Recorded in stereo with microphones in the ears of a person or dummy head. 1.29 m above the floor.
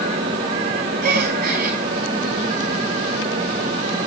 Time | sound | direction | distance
1.0 | a gasp | 50° right (ahead or behind) | 3 m